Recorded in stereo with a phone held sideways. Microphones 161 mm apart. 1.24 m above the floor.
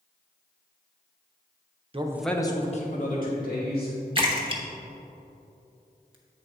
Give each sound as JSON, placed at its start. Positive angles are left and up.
{"t": 1.9, "sound": "a man speaking", "side_deg": -35, "distance_m": 0.7}
{"t": 4.2, "sound": "a splash", "side_deg": -30, "distance_m": 0.9}